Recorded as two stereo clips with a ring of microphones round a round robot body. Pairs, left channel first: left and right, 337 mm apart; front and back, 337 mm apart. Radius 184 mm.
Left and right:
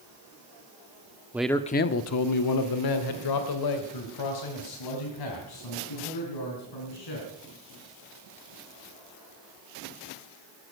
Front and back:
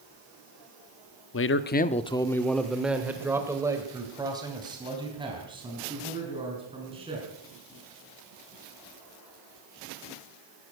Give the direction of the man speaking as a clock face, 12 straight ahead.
12 o'clock.